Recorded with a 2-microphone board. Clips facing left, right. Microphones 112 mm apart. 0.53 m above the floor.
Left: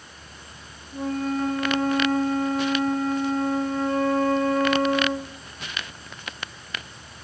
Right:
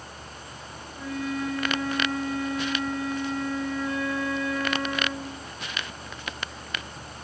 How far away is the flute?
About 2 m.